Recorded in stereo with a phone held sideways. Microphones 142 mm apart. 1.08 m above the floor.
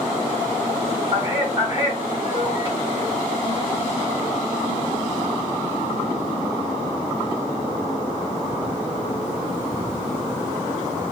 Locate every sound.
1.1 s a man speaking: 20° right (ahead or behind), 2.5 m